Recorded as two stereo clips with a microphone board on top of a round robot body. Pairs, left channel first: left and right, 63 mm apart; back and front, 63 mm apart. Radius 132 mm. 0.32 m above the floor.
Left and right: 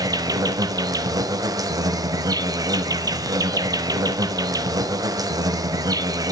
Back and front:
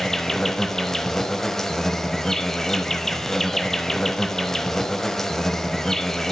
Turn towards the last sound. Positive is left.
turn(degrees=-95)